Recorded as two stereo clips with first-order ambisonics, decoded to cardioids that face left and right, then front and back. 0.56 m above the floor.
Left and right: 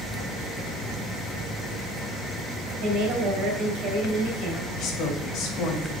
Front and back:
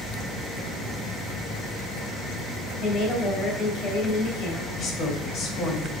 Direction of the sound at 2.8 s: 50° right.